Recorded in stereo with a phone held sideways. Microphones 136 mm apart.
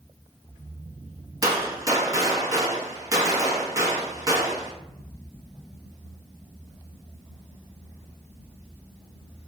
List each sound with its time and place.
1.4 s a gunshot: 25° right (ahead or behind), 0.8 m